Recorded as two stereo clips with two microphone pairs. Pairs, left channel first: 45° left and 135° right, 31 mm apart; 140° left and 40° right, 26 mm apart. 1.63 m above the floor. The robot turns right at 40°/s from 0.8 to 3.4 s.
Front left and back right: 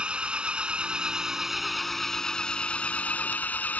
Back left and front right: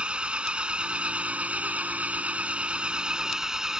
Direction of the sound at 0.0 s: 80° right.